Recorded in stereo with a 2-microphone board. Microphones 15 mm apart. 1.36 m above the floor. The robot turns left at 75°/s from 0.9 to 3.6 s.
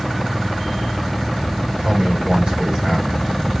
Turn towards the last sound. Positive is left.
turn(degrees=165)